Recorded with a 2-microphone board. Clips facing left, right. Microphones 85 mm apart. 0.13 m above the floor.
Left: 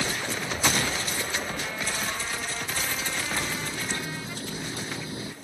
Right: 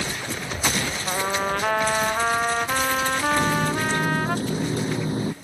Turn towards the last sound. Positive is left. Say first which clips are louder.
# right 10 dB
turn(degrees=-40)  # may be behind; listen again after turning